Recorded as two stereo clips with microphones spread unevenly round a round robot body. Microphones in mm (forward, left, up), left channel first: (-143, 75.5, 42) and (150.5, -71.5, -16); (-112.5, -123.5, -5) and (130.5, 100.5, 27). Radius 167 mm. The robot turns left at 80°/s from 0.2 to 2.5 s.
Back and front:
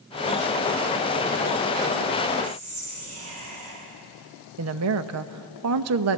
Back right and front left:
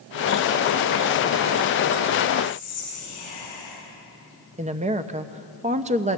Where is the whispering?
65° right, 9.5 m; by 3.7 s 70° right, 9.5 m.